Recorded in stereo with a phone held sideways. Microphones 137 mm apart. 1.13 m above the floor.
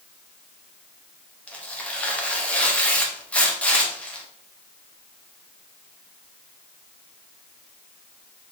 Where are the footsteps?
No footsteps in this recording.